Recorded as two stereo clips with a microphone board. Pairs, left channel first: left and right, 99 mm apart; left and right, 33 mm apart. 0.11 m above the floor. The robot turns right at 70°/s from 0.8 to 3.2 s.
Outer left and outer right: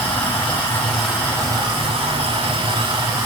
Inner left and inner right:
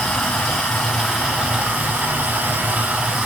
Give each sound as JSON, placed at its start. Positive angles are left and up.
{"t": 0.0, "sound": "running water", "azimuth_deg": 165, "distance_m": 6.0}